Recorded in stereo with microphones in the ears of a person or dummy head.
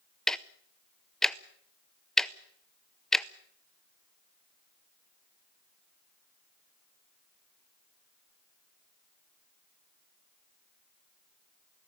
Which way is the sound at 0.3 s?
5° left (ahead or behind).